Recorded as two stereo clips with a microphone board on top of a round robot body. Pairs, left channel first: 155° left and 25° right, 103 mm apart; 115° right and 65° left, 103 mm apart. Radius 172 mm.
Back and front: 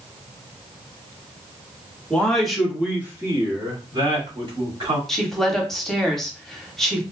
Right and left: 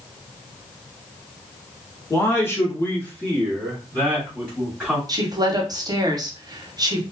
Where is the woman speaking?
70° left, 1.0 m.